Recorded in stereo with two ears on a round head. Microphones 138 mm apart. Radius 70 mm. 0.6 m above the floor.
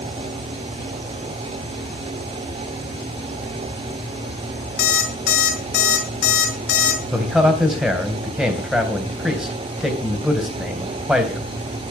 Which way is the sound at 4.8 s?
70° left (ahead or behind).